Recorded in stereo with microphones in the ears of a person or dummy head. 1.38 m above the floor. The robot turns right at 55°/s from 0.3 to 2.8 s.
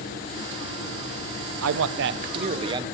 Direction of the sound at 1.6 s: 85° right.